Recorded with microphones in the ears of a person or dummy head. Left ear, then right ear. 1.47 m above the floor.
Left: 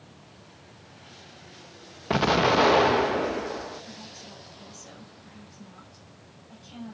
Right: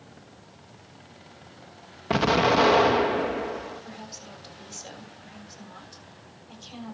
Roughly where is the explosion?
Centre.